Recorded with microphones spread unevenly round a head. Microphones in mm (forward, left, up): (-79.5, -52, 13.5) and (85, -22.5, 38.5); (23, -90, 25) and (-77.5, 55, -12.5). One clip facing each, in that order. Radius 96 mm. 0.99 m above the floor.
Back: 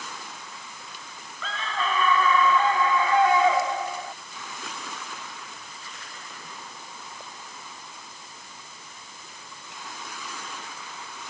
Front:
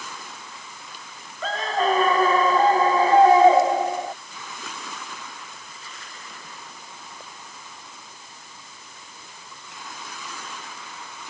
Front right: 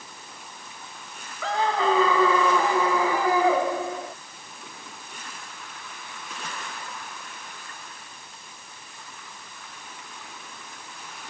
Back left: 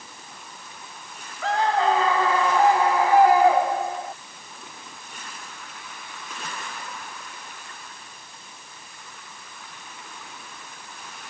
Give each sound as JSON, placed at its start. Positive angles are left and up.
{"t": 1.4, "sound": "a scream", "azimuth_deg": -40}